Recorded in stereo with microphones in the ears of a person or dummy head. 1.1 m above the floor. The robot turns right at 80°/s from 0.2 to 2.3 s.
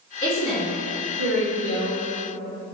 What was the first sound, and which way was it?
A woman speaking, 170° left.